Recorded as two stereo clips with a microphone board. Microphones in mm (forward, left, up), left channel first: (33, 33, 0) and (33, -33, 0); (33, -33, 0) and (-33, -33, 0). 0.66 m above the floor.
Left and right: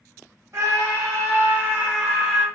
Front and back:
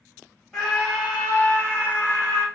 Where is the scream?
95° right, 1.6 m; by 2.5 s 5° right, 1.4 m.